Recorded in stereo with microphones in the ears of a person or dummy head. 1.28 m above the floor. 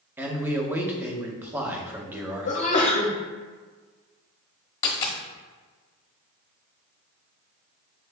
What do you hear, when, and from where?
0.2 s a man speaking: 15° right (ahead or behind), 0.7 m
2.5 s a sneeze: 35° left (ahead or behind), 0.8 m
4.8 s a dropped coin: 25° left (ahead or behind), 1.0 m